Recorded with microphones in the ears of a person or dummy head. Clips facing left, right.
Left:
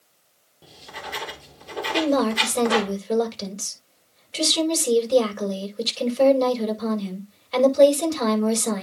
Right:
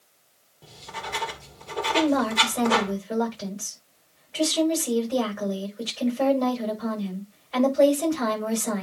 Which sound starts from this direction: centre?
Writing, at 0.6 s.